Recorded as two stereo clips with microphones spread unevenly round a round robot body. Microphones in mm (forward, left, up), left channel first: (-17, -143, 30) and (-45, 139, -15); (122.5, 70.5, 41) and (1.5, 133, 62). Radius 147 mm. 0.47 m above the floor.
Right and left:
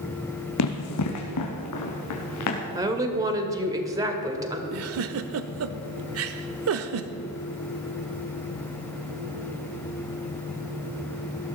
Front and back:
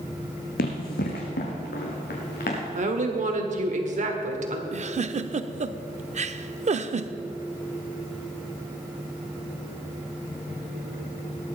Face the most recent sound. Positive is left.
turn(degrees=115)